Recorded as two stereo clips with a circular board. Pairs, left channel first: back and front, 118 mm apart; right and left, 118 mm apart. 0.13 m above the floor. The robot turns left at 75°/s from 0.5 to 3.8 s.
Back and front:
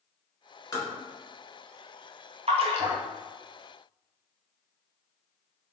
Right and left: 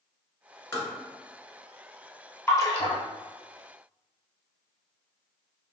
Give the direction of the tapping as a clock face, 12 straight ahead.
5 o'clock.